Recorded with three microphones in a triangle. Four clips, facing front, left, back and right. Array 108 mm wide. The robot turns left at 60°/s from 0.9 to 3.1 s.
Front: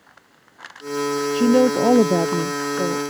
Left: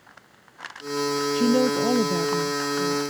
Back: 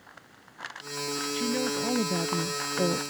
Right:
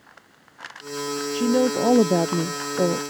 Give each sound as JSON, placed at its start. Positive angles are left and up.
{"t": 1.3, "sound": "a woman speaking", "azimuth_deg": 5}